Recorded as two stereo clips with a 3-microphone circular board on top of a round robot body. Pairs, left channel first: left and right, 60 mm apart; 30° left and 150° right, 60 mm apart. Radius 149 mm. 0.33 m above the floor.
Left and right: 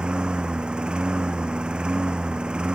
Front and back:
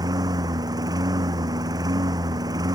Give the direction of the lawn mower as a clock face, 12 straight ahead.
6 o'clock.